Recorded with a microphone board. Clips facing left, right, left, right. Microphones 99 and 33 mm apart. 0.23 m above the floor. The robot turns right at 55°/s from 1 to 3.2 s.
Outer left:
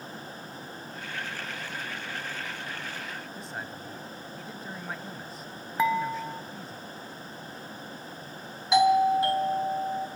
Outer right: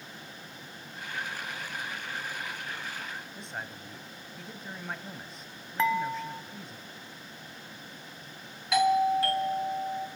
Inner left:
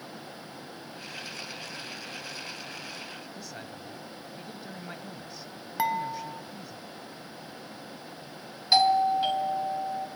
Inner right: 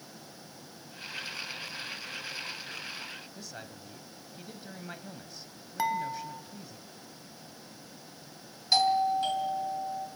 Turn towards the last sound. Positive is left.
turn(degrees=20)  # may be behind; listen again after turning